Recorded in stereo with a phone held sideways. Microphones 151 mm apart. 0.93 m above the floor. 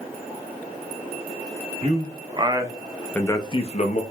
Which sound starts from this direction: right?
A man speaking, at 1.8 s.